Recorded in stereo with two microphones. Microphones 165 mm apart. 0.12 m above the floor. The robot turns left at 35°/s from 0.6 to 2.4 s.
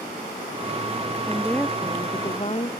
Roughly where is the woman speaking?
Behind.